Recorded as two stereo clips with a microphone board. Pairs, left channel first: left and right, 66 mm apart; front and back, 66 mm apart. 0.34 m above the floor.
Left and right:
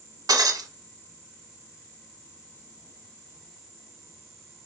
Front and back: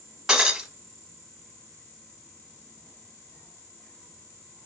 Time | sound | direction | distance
0.3 | breaking glass | 100° right | 0.9 m